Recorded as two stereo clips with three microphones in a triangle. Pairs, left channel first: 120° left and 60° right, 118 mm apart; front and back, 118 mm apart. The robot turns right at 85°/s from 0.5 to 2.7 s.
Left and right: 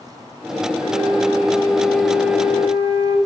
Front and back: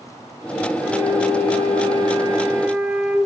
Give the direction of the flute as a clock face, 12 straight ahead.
9 o'clock.